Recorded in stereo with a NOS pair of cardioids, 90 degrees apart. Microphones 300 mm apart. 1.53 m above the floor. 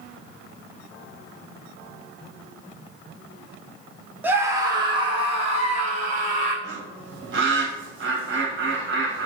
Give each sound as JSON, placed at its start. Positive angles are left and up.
{"t": 4.2, "sound": "a scream", "azimuth_deg": -5, "distance_m": 1.4}
{"t": 6.6, "sound": "a bird", "azimuth_deg": -40, "distance_m": 1.8}